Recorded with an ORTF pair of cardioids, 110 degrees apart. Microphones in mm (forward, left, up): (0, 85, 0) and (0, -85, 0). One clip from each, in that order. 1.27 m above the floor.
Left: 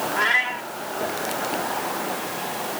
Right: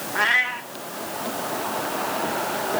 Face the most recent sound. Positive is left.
turn(degrees=-20)